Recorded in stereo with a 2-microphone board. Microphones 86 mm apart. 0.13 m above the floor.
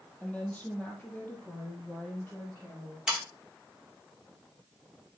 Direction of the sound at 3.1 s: 10° right (ahead or behind).